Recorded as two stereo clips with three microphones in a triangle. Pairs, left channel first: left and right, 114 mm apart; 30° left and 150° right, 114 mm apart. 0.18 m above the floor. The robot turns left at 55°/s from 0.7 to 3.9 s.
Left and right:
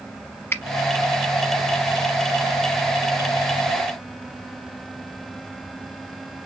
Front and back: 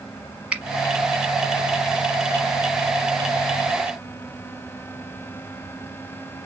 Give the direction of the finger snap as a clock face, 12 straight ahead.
7 o'clock.